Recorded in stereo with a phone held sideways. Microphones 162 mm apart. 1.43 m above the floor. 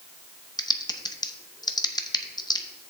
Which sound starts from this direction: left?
Typing on a keyboard, at 0.6 s.